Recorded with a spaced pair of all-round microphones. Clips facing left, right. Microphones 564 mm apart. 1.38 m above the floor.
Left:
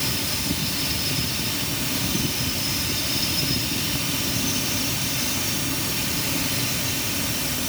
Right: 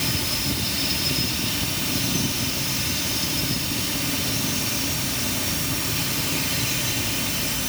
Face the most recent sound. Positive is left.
No sound to turn to.